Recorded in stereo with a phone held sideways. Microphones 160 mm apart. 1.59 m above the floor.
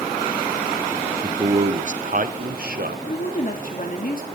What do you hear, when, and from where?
1.2 s a man speaking: 30° right (ahead or behind), 0.7 m; by 3.0 s 75° right (ahead or behind), 1.4 m
3.1 s a woman speaking: 60° left (ahead or behind), 2.5 m